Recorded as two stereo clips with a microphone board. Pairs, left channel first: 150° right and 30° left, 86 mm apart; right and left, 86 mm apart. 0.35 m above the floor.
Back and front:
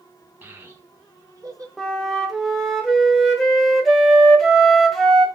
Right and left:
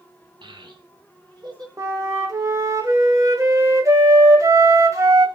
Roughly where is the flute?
Behind left.